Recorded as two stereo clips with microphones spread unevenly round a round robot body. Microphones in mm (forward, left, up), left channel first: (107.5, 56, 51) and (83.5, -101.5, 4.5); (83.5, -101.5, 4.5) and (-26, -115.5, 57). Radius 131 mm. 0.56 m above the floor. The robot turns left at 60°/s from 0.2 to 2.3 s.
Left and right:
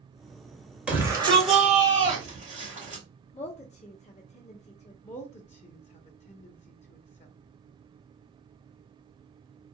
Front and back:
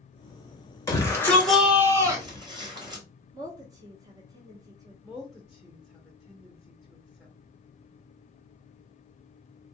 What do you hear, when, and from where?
0.9 s a shout: 25° right, 2.5 m; by 3.0 s 110° right, 2.5 m
3.3 s a woman speaking: 110° left, 0.8 m
5.0 s a woman speaking: 45° left, 0.7 m